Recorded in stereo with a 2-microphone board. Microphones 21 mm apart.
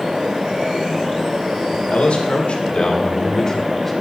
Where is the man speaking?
65° left (ahead or behind), 3 m; by 3.9 s 10° left (ahead or behind), 1.9 m.